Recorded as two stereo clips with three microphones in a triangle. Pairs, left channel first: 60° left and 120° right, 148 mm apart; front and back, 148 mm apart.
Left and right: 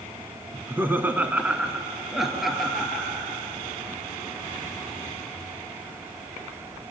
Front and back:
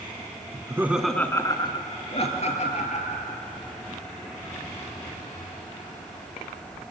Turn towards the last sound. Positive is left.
turn(degrees=-30)